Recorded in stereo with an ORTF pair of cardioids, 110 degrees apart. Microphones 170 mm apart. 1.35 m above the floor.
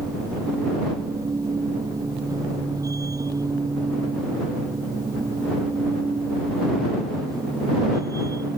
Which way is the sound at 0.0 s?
20° right.